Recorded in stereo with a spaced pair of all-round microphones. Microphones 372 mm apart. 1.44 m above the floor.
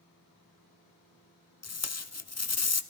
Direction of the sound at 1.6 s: 45° left (ahead or behind).